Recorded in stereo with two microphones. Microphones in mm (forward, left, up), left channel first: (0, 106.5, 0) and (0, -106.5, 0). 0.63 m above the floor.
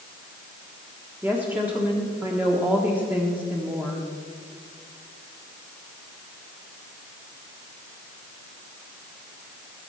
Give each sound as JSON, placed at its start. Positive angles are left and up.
{"t": 1.2, "sound": "a woman speaking", "side_deg": -10, "distance_m": 1.4}